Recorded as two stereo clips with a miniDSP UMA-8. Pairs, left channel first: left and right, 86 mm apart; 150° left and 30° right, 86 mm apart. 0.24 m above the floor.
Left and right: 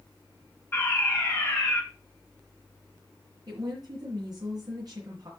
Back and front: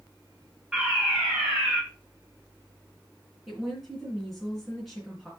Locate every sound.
0.7 s a fire alarm: 50° left, 3 m
3.5 s a woman speaking: 120° right, 3 m